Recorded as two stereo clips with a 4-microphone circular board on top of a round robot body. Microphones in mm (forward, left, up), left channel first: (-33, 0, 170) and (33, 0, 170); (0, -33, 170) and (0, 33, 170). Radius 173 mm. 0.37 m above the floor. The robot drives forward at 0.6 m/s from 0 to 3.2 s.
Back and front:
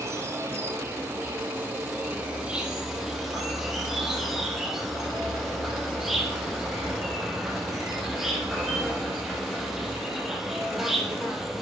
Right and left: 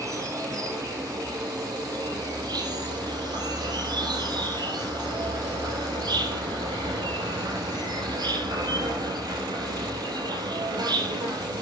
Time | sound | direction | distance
0.0 | an insect | 50° left | 3 m